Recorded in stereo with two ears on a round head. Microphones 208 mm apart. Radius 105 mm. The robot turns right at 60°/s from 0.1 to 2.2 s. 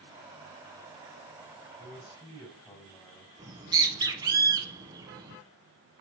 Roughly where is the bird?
Centre.